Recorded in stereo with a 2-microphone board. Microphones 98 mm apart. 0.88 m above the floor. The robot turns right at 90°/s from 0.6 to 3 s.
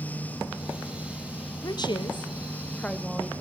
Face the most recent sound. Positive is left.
turn(degrees=180)